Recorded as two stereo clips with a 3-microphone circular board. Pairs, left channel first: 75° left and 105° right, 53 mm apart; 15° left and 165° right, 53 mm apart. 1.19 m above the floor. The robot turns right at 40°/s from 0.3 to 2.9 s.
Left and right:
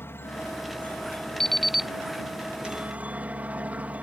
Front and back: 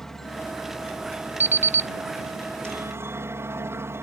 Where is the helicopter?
100° left; by 4.0 s 160° right.